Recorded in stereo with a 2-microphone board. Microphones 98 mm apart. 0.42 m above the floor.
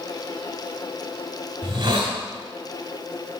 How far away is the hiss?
About 1.6 m.